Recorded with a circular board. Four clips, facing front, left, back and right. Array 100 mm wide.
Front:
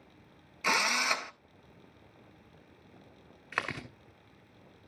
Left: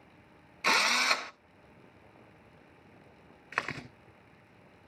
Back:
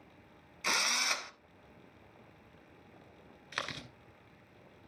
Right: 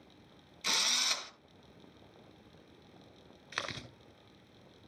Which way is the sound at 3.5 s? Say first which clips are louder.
Left 5 dB, front 5 dB; 45° left.